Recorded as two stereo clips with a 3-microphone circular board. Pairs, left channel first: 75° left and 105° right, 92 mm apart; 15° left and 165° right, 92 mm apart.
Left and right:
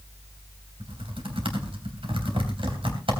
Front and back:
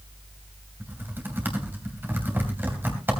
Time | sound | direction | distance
0.8 | typing on a keyboard | 100° right | 3 m